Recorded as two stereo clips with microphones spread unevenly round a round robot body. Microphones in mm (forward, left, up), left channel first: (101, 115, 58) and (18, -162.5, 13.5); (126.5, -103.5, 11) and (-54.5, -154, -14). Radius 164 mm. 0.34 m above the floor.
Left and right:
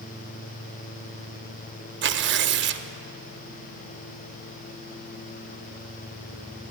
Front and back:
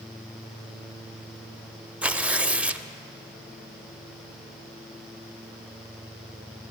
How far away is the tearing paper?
About 0.6 m.